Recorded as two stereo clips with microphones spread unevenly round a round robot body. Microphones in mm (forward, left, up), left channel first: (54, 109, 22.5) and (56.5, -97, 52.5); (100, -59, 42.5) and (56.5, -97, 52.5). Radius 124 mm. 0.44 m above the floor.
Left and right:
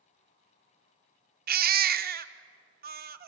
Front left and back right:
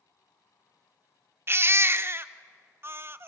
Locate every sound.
1.5 s a baby crying: 105° right, 0.7 m